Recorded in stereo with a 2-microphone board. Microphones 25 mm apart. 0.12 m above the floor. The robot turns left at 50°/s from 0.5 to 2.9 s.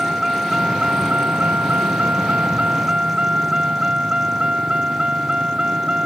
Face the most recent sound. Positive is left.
turn(degrees=-145)